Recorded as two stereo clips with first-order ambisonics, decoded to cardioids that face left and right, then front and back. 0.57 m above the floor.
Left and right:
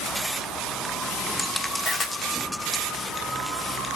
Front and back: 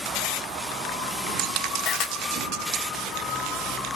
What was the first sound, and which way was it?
A camera shutter, 20° left.